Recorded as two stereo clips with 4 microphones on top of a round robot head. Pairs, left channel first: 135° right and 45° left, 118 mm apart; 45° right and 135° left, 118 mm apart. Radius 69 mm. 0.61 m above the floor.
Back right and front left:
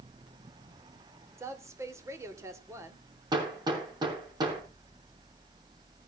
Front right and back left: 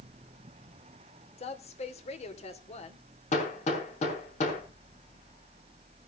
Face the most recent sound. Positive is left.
turn(degrees=-10)